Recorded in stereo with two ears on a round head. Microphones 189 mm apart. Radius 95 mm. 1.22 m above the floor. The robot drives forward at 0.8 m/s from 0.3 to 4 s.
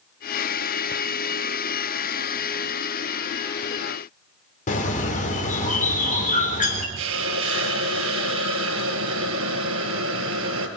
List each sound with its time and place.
4.7 s a bird: 40° left (ahead or behind), 4 m
7.0 s a hiss: 70° right (ahead or behind), 3.5 m